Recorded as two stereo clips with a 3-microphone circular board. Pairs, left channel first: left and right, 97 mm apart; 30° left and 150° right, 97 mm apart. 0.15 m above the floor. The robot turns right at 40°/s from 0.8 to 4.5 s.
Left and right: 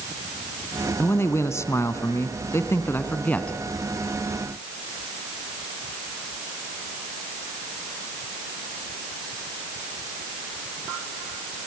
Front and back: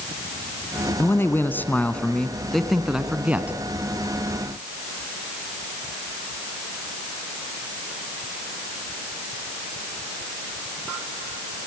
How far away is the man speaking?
About 1.4 m.